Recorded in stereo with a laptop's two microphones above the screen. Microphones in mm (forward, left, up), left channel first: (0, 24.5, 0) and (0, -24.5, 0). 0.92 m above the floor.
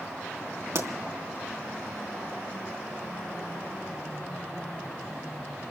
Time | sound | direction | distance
0.8 | a pop | 65° right (ahead or behind) | 3 m